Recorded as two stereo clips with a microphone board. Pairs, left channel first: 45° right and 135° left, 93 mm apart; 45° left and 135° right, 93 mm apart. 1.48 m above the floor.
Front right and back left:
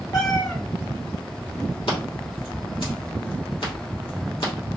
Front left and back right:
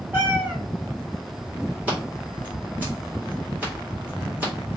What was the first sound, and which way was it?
A cat meowing, 75° right.